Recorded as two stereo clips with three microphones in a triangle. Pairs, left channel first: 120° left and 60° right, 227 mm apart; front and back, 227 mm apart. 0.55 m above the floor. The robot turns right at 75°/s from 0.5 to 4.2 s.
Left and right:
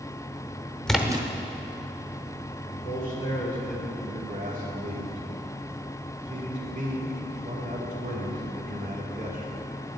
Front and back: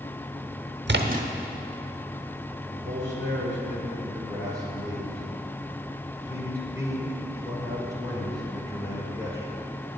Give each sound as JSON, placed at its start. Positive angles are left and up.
{"t": 0.9, "sound": "a splash", "azimuth_deg": -155, "distance_m": 0.8}
{"t": 2.7, "sound": "a man speaking", "azimuth_deg": 140, "distance_m": 2.0}